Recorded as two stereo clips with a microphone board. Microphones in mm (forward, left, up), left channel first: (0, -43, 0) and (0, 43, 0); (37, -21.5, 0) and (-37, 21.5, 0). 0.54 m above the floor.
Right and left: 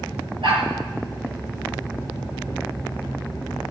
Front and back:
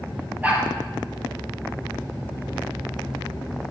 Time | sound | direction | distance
0.4 | a dog barking | 80° left | 4.5 m